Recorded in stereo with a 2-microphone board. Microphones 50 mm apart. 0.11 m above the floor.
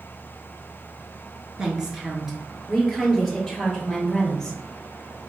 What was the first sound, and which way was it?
A woman speaking, 15° right (ahead or behind).